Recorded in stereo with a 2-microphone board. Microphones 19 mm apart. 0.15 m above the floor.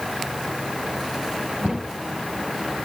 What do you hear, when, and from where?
1.6 s a cupboard door: 75° right (ahead or behind), 6 m